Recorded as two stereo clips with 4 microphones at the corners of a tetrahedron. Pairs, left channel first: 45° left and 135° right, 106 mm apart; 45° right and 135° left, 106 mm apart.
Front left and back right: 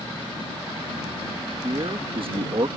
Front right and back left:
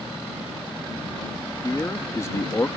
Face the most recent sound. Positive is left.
turn(degrees=-105)